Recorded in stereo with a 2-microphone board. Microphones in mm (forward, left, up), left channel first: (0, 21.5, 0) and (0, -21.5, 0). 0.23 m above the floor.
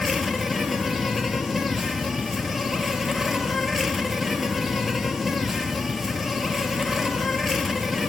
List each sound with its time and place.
0.0 s an insect: centre (ahead or behind), 0.7 m